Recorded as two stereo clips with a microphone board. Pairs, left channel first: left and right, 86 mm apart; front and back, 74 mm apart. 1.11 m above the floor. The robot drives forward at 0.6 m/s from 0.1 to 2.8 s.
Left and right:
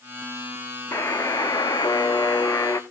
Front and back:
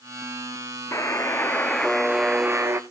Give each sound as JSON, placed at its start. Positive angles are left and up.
{"t": 0.9, "sound": "a buzzer", "azimuth_deg": 40, "distance_m": 0.9}